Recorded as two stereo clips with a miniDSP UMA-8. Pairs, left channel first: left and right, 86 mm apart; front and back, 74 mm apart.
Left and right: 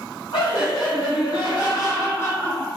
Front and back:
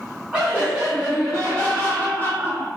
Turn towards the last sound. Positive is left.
turn(degrees=15)